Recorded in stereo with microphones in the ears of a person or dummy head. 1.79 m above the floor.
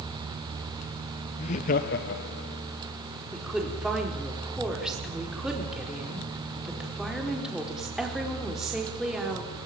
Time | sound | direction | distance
1.4 | laughter | 35° left (ahead or behind) | 1.0 m
3.3 | a woman speaking | centre (ahead or behind) | 5 m